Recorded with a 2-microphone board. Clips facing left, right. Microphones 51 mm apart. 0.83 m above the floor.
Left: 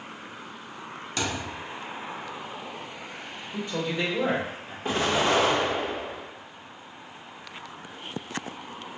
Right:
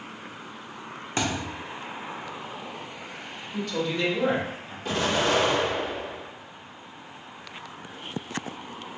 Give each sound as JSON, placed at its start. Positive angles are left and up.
{"t": 1.2, "sound": "a thud", "side_deg": -30, "distance_m": 0.6}
{"t": 3.5, "sound": "a man speaking", "side_deg": 25, "distance_m": 1.0}
{"t": 4.8, "sound": "an explosion", "side_deg": 30, "distance_m": 1.2}